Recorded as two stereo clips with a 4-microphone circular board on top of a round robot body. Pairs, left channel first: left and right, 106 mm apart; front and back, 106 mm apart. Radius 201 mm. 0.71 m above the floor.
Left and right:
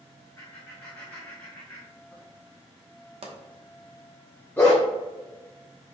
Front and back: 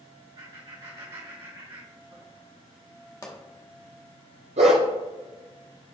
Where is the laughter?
155° left, 2.5 m.